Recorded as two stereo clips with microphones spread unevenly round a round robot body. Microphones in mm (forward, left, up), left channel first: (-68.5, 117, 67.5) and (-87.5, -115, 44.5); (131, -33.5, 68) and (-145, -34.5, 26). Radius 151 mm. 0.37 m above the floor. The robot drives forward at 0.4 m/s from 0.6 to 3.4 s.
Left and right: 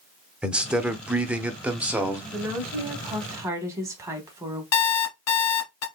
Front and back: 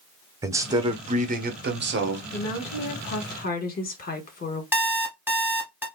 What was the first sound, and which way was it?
A man speaking, 155° right.